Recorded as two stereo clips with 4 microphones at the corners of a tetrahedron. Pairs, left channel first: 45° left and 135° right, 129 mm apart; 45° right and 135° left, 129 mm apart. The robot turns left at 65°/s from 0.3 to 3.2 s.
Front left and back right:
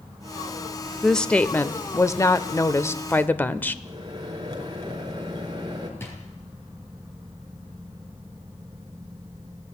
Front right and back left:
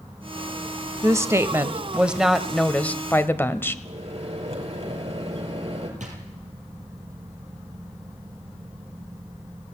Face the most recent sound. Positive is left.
turn(degrees=115)